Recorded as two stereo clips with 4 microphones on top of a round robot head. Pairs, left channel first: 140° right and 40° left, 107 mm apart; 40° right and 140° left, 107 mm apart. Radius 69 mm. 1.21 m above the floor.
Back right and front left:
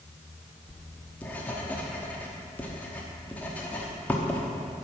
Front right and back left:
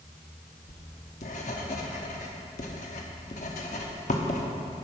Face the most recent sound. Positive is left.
turn(degrees=-60)